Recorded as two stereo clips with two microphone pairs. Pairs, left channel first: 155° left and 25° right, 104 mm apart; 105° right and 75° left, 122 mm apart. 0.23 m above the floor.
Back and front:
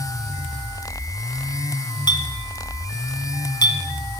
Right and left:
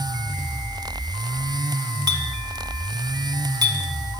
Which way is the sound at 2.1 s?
125° left.